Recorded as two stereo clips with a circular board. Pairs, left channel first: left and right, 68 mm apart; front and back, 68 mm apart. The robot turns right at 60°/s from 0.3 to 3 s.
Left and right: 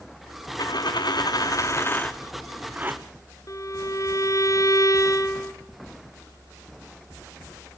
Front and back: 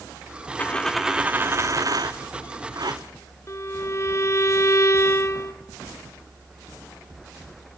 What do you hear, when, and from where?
0.6 s a dropped coin: 70° left, 1.3 m; by 3.0 s 145° right, 1.3 m
3.5 s a violin: 50° left, 1.3 m